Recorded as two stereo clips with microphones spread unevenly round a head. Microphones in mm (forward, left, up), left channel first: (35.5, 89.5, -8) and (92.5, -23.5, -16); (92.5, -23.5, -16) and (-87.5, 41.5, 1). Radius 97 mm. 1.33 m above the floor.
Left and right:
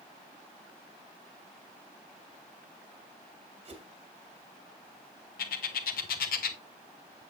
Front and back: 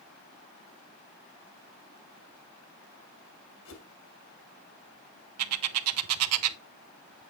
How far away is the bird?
About 0.7 m.